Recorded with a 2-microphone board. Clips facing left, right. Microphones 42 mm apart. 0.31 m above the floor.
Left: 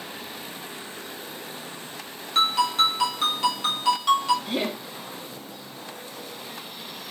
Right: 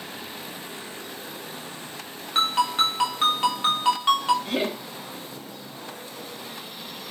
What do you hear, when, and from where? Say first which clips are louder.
2.4 s a ringtone: left 1 dB; 25° right (ahead or behind), 1.1 m
4.5 s laughter: right 1 dB; 50° right (ahead or behind), 1.3 m